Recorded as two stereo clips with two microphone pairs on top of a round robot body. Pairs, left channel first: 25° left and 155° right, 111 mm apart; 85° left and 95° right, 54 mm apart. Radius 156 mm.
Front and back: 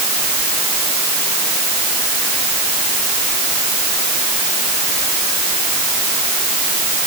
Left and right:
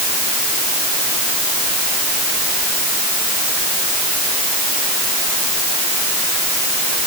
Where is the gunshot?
No gunshot in this recording.